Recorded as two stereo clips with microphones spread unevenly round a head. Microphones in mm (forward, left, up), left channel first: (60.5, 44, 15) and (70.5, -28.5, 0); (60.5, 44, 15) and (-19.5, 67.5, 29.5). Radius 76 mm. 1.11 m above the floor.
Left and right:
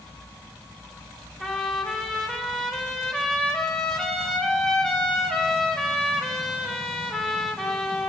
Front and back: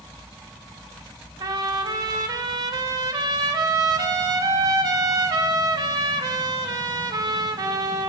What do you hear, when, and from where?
1.4 s a trumpet: 170° left, 0.6 m